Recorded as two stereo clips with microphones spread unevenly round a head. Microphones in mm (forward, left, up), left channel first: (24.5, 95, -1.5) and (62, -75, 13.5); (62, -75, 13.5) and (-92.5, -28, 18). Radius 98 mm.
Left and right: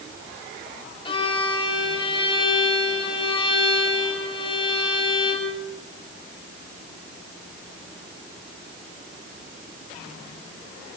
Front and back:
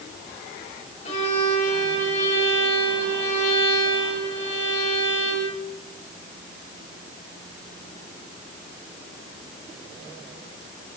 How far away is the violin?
About 7.5 m.